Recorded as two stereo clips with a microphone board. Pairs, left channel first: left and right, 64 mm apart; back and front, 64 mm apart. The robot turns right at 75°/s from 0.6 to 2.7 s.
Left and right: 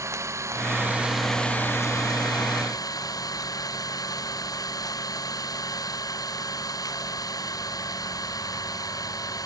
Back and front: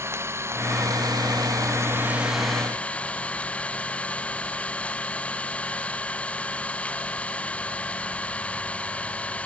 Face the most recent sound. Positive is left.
turn(degrees=110)